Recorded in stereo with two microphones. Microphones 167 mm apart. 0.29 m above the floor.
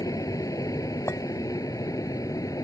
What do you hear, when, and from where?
0.0 s an aircraft: 20° left (ahead or behind)
1.1 s a clink: 15° left (ahead or behind)